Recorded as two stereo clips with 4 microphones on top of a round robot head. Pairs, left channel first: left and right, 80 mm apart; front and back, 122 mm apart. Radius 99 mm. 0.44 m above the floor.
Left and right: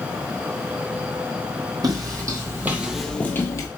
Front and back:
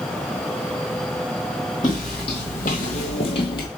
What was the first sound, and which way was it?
Footsteps, 60° right.